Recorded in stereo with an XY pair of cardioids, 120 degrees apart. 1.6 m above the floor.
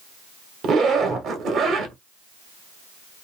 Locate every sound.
0.6 s a zipper: 55° right, 1.1 m